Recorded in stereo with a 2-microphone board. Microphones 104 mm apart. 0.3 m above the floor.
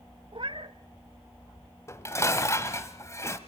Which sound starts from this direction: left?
Dishes clattering, at 1.9 s.